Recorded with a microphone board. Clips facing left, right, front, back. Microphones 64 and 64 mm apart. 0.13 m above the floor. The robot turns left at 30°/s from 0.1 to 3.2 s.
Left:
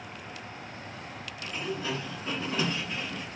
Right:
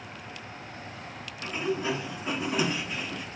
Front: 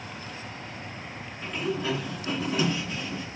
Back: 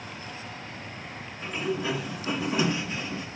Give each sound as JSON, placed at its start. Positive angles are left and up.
{"t": 1.4, "sound": "a sliding door", "azimuth_deg": -115, "distance_m": 0.9}